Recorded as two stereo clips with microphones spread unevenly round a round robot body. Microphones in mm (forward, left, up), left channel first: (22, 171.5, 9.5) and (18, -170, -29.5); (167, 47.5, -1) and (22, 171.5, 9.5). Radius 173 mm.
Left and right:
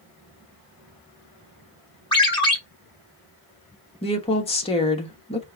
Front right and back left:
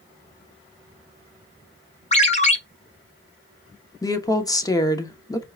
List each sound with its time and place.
2.1 s a ringtone: 10° left, 1.6 m
4.0 s a woman speaking: 15° left, 1.2 m